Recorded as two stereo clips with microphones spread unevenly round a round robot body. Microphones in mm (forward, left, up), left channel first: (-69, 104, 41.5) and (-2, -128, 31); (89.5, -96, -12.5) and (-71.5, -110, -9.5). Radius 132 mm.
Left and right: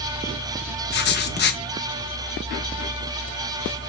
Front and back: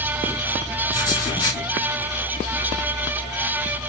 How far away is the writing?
About 0.6 m.